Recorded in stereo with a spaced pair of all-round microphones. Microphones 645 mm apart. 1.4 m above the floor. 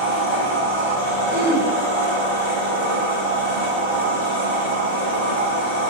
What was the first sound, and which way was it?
A machine running, 45° right (ahead or behind).